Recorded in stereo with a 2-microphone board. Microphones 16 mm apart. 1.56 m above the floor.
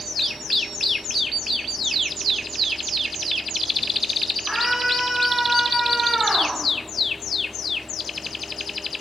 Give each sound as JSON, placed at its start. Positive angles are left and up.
{"t": 4.5, "sound": "a scream", "side_deg": -35, "distance_m": 6.5}